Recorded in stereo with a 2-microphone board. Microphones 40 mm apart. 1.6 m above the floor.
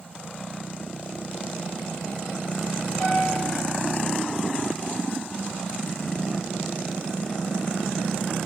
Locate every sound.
3.0 s a piano: 25° left (ahead or behind), 7 m